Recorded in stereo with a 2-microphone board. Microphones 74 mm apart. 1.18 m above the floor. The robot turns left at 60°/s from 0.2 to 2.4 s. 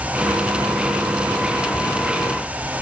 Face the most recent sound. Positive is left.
No sound to turn to.